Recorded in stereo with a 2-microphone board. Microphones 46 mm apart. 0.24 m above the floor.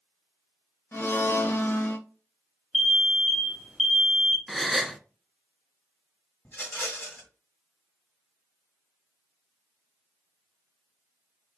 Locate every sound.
0.9 s a blender: 45° left (ahead or behind), 0.8 m
2.7 s an alarm: centre (ahead or behind), 1.1 m
4.5 s a gasp: centre (ahead or behind), 0.5 m
6.5 s a rattle: 40° left (ahead or behind), 1.6 m